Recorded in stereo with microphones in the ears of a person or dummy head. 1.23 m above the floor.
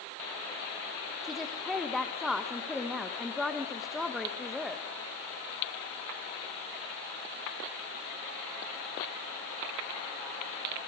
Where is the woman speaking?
10° right (ahead or behind), 1.4 m.